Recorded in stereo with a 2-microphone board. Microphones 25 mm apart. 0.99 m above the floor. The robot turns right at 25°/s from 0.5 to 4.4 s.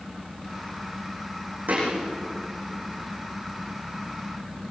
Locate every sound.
1.7 s a thud: 85° right, 8.5 m